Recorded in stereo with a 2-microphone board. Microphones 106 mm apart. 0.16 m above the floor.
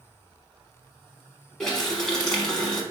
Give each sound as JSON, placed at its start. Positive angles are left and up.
{"t": 1.6, "sound": "a running tap", "side_deg": 5, "distance_m": 1.0}